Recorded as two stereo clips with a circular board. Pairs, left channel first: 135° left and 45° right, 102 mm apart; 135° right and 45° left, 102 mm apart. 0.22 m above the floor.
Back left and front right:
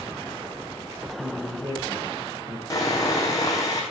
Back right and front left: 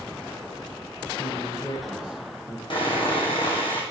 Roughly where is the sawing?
Behind.